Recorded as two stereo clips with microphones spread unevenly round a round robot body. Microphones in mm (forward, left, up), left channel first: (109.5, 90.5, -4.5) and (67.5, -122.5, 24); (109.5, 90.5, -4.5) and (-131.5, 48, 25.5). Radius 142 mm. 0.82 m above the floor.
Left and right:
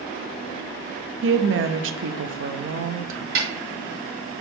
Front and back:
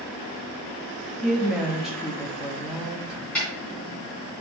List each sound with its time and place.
1.2 s a woman speaking: 75° right, 0.8 m
3.4 s a snare drum: 75° right, 3 m